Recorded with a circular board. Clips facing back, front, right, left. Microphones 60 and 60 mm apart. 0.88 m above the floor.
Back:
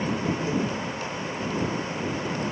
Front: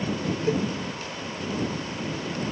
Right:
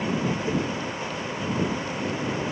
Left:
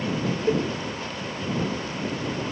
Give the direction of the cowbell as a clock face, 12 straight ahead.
10 o'clock.